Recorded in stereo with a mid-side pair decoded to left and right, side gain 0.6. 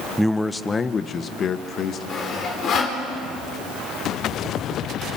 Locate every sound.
0.2 s a man speaking: 5° right, 0.9 m; by 2.0 s 50° left, 2 m
2.1 s sawing: 45° left, 5 m